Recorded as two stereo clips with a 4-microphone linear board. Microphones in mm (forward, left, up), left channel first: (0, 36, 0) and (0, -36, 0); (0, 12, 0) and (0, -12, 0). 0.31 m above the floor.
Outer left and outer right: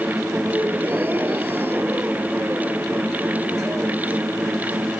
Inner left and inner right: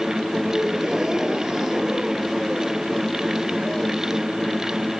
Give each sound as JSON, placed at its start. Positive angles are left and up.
{"t": 0.5, "sound": "a gasp", "side_deg": -30}